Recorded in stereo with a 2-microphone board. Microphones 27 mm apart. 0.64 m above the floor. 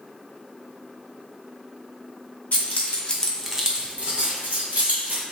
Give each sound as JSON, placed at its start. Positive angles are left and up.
{"t": 2.5, "sound": "keys jangling", "side_deg": 60, "distance_m": 0.9}